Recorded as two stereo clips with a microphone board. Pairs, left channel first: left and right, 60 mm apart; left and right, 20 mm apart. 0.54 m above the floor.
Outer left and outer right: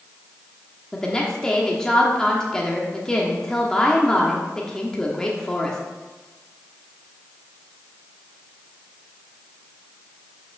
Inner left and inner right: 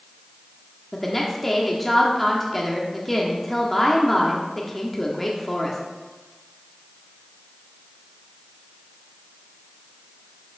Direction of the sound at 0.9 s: 10° left (ahead or behind).